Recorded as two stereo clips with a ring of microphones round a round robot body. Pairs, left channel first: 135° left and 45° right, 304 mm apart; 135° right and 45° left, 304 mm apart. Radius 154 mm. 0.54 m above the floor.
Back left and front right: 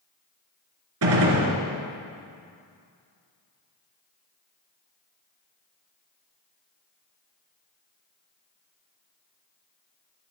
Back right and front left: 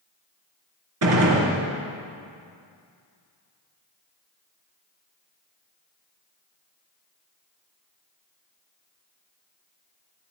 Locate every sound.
1.0 s a gunshot: straight ahead, 3.5 m